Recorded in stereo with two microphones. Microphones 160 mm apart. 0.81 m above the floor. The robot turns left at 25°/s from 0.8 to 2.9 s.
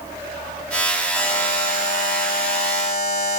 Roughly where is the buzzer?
Behind.